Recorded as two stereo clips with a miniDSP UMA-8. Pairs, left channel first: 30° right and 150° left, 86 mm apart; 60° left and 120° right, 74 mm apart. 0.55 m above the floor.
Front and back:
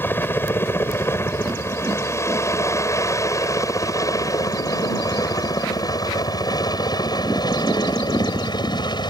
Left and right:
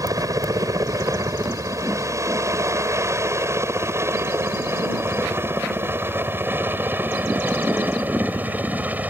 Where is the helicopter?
90° right; by 9.1 s 55° right.